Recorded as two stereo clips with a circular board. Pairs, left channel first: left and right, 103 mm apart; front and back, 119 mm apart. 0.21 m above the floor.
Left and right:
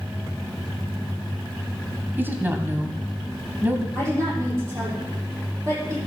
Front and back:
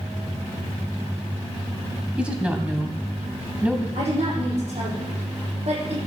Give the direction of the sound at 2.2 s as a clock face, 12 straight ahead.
4 o'clock.